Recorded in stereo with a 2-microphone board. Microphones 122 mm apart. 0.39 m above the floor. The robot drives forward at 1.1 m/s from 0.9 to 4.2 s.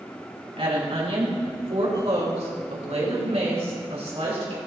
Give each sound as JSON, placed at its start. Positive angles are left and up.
{"t": 0.6, "sound": "a woman speaking", "side_deg": -60, "distance_m": 4.0}